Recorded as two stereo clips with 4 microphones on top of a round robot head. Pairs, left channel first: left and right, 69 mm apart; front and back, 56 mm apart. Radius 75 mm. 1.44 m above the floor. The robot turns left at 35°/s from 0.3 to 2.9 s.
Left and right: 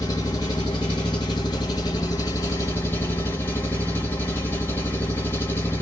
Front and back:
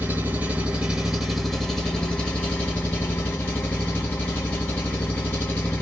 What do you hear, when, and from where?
0.0 s an engine running: 140° left, 0.9 m; by 5.8 s 50° left, 0.9 m